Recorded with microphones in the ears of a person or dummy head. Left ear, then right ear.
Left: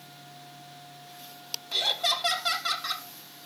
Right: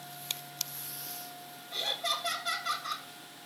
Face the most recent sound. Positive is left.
turn(degrees=55)  # may be behind; listen again after turning